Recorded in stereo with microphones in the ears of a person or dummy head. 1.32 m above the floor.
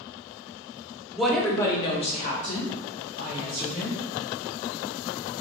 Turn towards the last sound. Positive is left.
turn(degrees=45)  # may be behind; listen again after turning